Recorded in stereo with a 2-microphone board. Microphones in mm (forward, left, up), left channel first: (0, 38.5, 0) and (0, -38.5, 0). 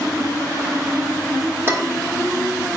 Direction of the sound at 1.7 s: 35° right (ahead or behind).